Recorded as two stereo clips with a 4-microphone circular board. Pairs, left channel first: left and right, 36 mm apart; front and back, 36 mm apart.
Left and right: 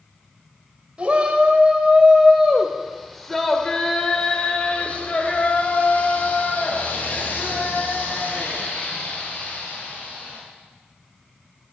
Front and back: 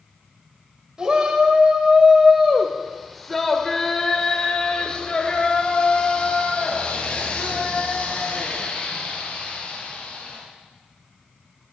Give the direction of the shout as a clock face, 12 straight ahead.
4 o'clock.